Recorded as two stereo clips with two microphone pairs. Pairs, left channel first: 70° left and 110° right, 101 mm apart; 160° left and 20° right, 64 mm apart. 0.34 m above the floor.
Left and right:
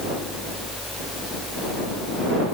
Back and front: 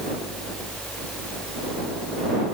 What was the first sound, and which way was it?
Only background noise.